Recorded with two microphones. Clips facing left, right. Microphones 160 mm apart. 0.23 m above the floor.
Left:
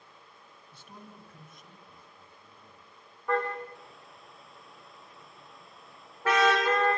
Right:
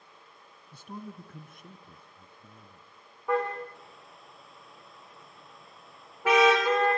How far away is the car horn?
About 8 m.